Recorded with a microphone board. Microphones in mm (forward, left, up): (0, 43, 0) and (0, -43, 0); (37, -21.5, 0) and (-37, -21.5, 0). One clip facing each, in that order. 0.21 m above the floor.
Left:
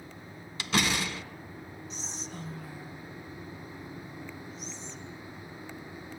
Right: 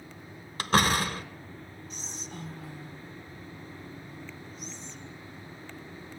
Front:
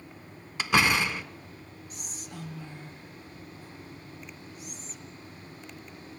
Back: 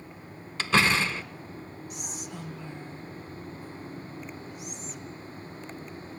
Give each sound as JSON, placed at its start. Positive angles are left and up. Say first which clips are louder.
{"t": 0.6, "sound": "a door slam", "louder": "right 5 dB, even", "azimuth_deg": -70, "distance_m": 1.7}
{"t": 1.9, "sound": "whispering", "louder": "even, back 3 dB", "azimuth_deg": -45, "distance_m": 5.5}